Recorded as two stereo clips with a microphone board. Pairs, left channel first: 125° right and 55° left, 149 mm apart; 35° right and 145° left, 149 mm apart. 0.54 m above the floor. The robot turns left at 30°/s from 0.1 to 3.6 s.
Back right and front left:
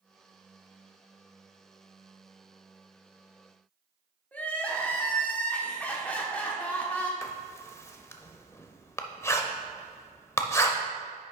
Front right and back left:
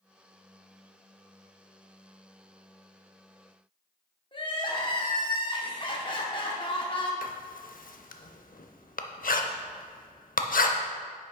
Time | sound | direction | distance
4.3 | crying | 50° right | 0.9 m
7.2 | writing | 50° right | 0.6 m